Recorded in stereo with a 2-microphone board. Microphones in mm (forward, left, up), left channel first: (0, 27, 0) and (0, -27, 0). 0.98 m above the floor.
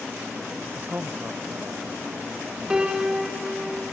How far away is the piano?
About 1.0 m.